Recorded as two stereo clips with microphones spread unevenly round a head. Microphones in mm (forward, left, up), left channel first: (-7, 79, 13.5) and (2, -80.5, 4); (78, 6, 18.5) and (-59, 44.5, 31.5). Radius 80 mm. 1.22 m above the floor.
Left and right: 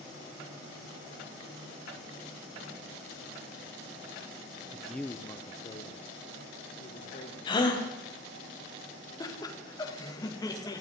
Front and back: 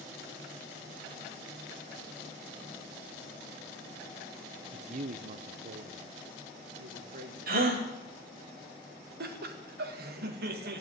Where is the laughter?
160° left, 2.0 m.